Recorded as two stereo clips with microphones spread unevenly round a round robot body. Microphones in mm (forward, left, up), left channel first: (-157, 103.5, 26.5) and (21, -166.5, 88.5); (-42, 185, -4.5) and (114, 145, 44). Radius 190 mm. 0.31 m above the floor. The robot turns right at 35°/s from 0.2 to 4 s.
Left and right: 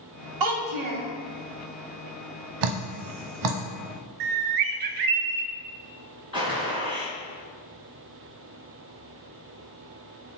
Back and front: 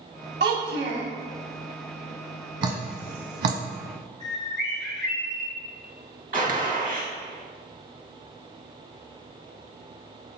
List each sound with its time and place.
0.4 s a child speaking: 35° right, 1.3 m; by 1.1 s 15° right, 1.3 m
2.6 s dripping: 45° right, 0.6 m; by 3.6 s 10° right, 0.6 m
4.2 s a bird: 75° right, 0.6 m
6.3 s a gunshot: 20° left, 1.5 m